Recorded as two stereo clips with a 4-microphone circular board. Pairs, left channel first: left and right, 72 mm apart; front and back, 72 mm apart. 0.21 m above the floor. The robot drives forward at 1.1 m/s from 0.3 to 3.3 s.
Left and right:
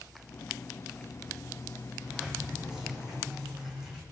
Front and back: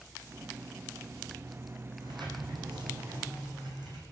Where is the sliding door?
170° right, 7.5 m; by 4.0 s 175° right, 9 m.